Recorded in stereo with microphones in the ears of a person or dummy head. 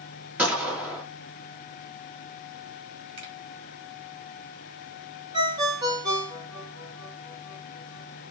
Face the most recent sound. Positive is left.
turn(degrees=-30)  # may be behind; listen again after turning